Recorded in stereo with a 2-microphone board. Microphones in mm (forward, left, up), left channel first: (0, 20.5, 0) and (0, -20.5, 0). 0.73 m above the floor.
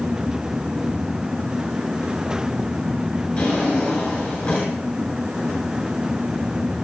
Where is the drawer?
35° left (ahead or behind), 7.5 m.